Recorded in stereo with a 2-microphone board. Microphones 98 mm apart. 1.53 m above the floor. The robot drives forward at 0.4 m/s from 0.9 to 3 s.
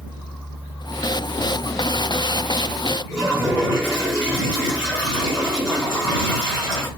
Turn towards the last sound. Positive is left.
turn(degrees=15)  # may be behind; listen again after turning